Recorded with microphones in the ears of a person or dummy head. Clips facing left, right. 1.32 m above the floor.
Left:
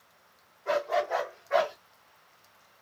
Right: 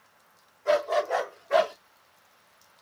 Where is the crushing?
I don't hear crushing.